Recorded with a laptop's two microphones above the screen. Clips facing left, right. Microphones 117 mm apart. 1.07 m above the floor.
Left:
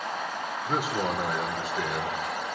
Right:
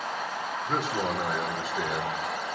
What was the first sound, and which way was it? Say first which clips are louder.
A man speaking: left 1 dB; 5° left (ahead or behind).